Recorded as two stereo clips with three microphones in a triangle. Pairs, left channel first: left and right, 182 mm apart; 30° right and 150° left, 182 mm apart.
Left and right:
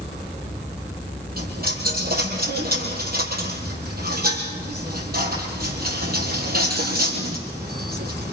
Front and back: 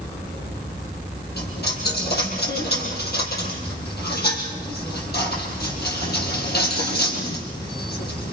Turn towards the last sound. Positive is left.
turn(degrees=-55)